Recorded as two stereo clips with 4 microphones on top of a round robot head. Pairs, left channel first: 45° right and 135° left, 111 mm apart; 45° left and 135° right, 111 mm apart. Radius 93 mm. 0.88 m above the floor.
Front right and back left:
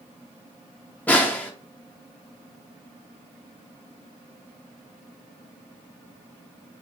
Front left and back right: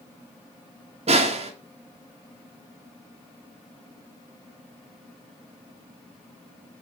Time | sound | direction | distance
1.1 | a snare drum | 120° right | 1.5 m